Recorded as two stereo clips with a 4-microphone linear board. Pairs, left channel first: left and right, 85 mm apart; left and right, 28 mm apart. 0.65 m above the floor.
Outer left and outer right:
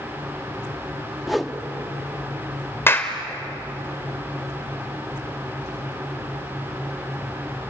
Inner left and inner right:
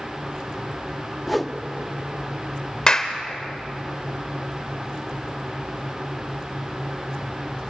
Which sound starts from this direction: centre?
A whoosh, at 1.3 s.